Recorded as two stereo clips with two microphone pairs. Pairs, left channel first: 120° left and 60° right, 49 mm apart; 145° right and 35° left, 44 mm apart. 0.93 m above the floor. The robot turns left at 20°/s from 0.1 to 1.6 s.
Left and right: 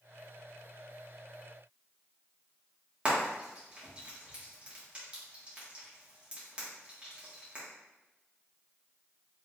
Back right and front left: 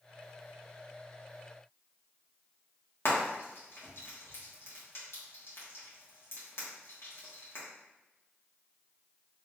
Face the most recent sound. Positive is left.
turn(degrees=-125)